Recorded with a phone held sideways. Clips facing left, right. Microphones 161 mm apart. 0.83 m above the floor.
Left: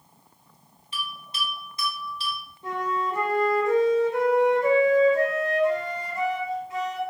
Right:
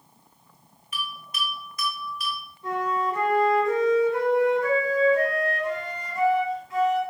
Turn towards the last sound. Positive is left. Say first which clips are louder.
# right 2 dB
turn(degrees=20)  # may be behind; listen again after turning